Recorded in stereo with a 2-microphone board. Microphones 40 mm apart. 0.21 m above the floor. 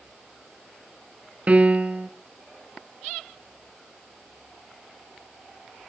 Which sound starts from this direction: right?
A piano, at 1.5 s.